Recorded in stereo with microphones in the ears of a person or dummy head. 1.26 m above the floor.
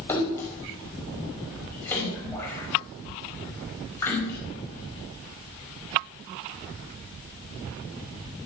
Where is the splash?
5° left (ahead or behind), 5 m.